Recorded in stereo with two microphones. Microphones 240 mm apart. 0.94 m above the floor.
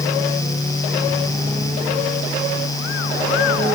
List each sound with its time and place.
Only background noise.